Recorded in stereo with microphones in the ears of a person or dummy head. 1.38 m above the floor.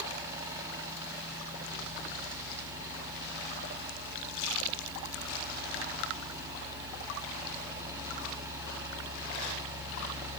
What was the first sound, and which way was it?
A fan, 15° right (ahead or behind).